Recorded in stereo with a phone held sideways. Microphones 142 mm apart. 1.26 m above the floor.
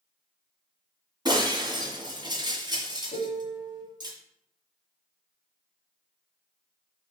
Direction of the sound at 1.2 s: 30° right (ahead or behind).